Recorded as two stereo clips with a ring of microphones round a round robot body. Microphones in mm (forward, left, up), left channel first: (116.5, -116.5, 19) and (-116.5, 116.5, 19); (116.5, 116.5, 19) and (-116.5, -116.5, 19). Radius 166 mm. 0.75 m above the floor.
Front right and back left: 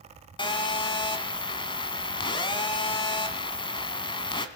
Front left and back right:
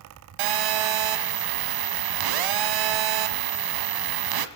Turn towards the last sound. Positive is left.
turn(degrees=-120)